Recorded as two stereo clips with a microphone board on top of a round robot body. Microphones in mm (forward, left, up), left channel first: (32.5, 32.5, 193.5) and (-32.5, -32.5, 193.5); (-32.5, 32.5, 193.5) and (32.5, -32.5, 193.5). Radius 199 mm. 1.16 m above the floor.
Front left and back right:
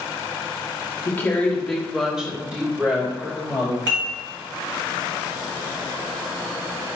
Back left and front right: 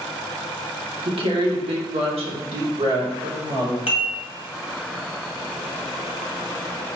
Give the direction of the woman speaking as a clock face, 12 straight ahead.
1 o'clock.